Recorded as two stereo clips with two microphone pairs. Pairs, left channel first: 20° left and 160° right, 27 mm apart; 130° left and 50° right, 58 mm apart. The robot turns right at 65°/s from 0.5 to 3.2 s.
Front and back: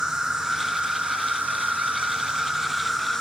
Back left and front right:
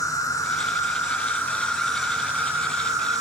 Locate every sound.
0.0 s an insect: 130° left, 1.9 m; by 3.2 s 55° right, 1.9 m